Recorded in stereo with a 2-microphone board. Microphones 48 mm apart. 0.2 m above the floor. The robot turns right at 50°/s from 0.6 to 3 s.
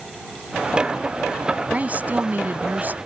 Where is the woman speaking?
130° right; by 3.0 s 70° right.